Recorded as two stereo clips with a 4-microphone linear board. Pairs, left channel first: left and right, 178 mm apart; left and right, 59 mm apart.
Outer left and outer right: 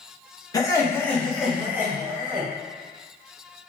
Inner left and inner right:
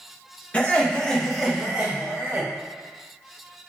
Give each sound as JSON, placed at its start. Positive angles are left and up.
{"t": 0.5, "sound": "laughter", "side_deg": 20, "distance_m": 0.8}